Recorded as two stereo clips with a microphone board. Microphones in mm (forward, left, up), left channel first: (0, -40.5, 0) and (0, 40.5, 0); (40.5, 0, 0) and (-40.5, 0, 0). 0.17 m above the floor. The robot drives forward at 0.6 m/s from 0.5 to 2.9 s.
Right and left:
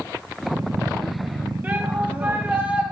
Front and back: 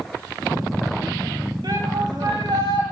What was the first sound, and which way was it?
A shout, 155° left.